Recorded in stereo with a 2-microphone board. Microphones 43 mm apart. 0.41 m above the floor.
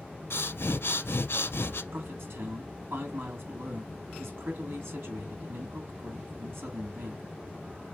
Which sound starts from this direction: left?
Breathing, at 0.3 s.